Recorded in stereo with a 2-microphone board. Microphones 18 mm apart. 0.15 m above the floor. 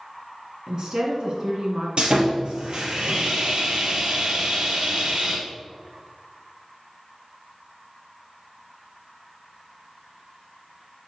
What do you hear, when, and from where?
0.7 s a woman speaking: 40° right (ahead or behind), 1.9 m
2.0 s sawing: 60° right (ahead or behind), 2.5 m